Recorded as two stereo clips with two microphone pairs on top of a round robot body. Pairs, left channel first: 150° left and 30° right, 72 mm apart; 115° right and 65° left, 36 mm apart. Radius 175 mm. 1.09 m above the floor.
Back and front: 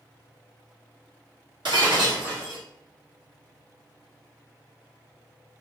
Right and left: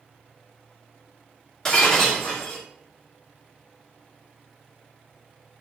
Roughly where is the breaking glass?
Ahead right.